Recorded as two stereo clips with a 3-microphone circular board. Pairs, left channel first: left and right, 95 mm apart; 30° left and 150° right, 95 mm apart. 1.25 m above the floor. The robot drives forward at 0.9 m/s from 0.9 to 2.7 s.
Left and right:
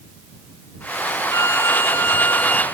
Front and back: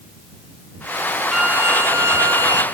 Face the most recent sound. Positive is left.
turn(degrees=165)